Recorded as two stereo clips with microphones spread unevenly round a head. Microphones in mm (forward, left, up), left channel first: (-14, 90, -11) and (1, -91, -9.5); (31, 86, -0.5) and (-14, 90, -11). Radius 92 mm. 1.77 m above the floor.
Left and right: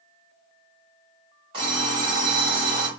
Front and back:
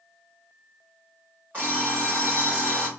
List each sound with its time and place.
1.5 s an alarm clock: 125° right, 1.6 m